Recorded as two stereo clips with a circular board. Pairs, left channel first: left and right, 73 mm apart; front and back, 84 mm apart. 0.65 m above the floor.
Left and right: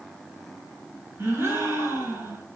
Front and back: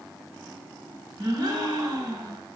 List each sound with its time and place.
1.2 s a gasp: 145° right, 4 m